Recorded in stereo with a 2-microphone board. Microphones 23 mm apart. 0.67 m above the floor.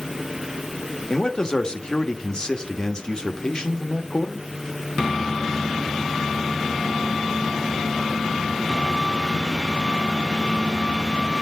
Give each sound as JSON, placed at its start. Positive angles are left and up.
{"t": 1.1, "sound": "a man speaking", "side_deg": 35, "distance_m": 1.2}